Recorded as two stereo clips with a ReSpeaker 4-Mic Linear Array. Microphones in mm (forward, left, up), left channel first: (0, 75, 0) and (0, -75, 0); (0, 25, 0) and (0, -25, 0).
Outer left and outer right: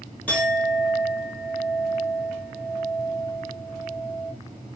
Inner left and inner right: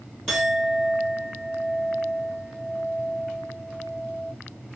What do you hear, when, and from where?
0.3 s a clink: 10° left (ahead or behind), 1.3 m